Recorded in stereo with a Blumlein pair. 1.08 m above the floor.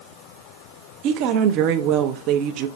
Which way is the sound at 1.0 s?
40° right.